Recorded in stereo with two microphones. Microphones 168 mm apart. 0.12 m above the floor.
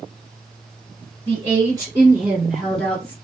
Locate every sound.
1.3 s a woman speaking: 35° right (ahead or behind), 2 m; by 3.1 s 10° left (ahead or behind), 2 m